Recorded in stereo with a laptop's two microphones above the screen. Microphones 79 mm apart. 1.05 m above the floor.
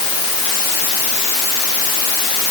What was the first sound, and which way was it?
Only background noise.